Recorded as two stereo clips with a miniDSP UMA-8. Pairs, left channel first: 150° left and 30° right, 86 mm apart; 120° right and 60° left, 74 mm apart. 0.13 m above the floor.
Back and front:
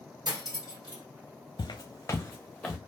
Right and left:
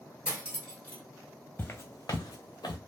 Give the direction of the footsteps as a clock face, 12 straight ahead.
6 o'clock.